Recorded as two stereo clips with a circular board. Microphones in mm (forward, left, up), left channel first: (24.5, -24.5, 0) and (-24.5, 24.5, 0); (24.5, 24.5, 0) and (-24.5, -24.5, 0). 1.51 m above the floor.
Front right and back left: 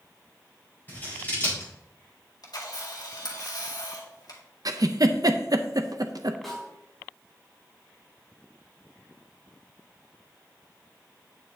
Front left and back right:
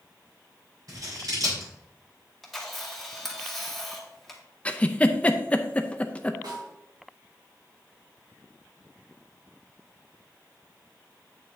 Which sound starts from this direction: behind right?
A snare drum, at 6.4 s.